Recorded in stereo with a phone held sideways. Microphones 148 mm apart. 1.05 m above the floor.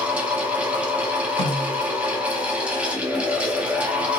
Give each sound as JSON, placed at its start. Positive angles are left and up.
{"t": 0.0, "sound": "a fan", "side_deg": -10, "distance_m": 0.7}
{"t": 1.4, "sound": "a snare drum", "side_deg": 40, "distance_m": 1.9}